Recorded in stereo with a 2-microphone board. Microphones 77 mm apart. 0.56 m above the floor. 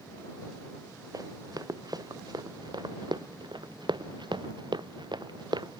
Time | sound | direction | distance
1.1 | running footsteps | 55° right (ahead or behind) | ?